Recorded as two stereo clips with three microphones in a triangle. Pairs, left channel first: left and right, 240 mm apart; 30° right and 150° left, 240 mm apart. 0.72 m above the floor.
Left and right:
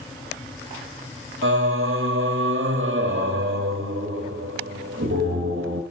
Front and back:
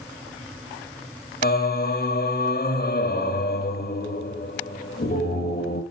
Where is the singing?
70° right, 1.2 m.